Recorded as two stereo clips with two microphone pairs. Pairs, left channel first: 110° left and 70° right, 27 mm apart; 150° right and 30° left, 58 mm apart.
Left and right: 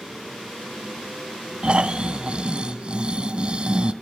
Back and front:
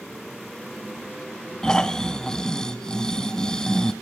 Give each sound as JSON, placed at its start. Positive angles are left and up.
{"t": 1.6, "sound": "snoring", "azimuth_deg": -80, "distance_m": 1.0}